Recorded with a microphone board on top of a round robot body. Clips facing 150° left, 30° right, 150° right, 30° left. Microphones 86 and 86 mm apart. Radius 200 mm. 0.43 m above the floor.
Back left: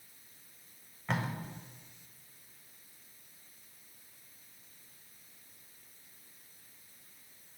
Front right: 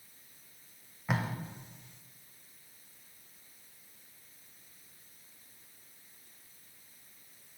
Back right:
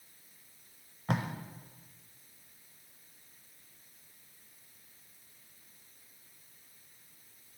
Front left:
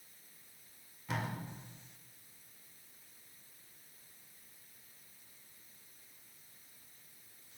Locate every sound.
1.1 s tape being pulled: 115° right, 0.6 m